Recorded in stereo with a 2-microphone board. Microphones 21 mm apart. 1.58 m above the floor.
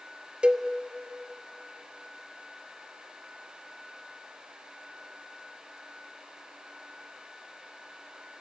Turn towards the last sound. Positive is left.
turn(degrees=-60)  # may be behind; listen again after turning